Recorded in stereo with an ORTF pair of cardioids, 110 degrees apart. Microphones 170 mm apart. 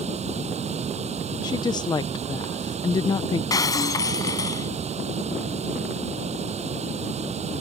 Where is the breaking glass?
20° left.